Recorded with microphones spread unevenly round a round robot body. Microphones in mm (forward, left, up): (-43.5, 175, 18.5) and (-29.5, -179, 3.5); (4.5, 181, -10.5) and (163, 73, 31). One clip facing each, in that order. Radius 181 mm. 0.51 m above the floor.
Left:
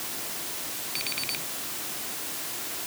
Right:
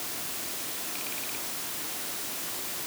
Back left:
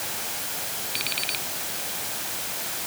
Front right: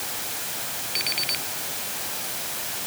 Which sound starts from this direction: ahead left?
An alarm clock, at 0.9 s.